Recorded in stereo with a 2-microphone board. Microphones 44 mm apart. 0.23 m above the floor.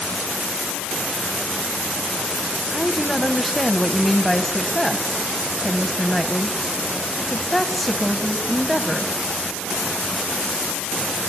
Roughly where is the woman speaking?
Centre.